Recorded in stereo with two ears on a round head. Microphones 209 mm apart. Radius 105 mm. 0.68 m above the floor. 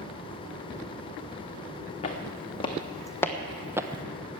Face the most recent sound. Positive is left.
turn(degrees=-25)  # may be behind; listen again after turning